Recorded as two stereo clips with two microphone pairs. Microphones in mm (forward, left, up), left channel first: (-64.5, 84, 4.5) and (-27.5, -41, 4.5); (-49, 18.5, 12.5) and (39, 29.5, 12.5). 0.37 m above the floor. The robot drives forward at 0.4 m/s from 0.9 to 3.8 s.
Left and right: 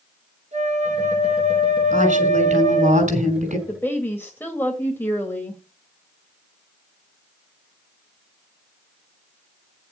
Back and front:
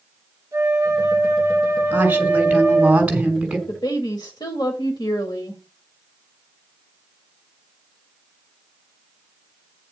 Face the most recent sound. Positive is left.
turn(degrees=175)